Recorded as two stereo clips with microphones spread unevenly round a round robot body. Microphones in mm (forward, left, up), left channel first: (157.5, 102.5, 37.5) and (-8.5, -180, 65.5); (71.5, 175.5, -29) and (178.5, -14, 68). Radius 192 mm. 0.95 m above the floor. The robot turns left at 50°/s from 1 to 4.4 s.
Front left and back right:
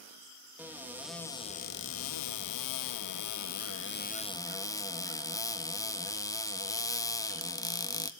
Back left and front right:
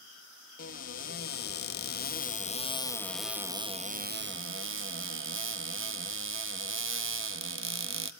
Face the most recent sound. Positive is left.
turn(degrees=-20)